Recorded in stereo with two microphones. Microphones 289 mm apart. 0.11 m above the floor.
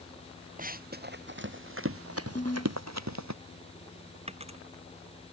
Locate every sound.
0.6 s running footsteps: 30° right (ahead or behind); by 3.4 s 70° right (ahead or behind)
2.4 s a ringtone: 25° left (ahead or behind)
4.3 s a dropped coin: 20° right (ahead or behind)